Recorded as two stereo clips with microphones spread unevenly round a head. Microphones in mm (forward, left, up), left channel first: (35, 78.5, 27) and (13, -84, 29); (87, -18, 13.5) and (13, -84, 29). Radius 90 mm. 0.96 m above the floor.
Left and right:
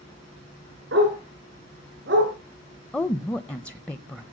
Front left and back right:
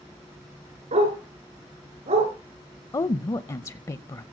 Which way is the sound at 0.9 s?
130° right.